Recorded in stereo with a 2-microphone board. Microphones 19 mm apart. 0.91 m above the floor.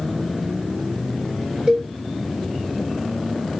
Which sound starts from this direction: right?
A cowbell, at 1.7 s.